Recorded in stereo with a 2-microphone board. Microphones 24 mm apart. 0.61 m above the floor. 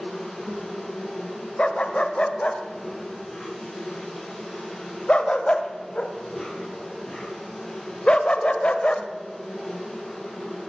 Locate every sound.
0.0 s an insect: 5° left (ahead or behind), 8.5 m
1.6 s a dog barking: 50° left (ahead or behind), 1.0 m